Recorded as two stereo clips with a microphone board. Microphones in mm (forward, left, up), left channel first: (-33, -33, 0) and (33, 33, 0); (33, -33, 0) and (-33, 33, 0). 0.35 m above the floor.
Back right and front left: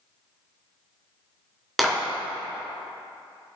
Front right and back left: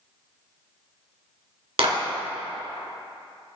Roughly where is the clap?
Behind left.